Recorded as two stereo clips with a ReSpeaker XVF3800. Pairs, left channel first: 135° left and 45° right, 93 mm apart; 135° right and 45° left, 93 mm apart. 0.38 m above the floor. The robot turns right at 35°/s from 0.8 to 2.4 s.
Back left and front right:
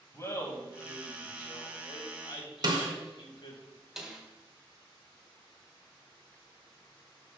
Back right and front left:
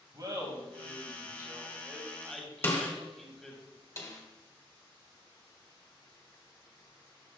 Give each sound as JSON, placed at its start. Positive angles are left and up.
{"t": 0.1, "sound": "laughter", "azimuth_deg": 85, "distance_m": 2.0}
{"t": 2.6, "sound": "a snare drum", "azimuth_deg": -75, "distance_m": 1.5}
{"t": 4.0, "sound": "a snare drum", "azimuth_deg": -130, "distance_m": 1.5}